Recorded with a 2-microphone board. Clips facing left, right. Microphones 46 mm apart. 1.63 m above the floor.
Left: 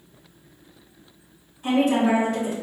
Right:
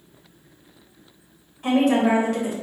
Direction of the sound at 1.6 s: 65° right (ahead or behind).